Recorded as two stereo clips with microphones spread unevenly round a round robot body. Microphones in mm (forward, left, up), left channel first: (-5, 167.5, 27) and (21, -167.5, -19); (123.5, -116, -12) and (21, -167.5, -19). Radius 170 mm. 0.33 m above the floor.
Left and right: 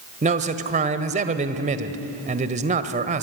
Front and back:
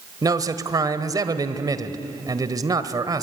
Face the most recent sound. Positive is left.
turn(degrees=-130)